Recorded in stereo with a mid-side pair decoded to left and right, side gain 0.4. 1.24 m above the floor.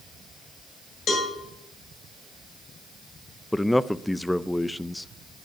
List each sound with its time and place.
1.1 s a cowbell: 65° left, 5.5 m
3.5 s a man speaking: 10° left, 0.7 m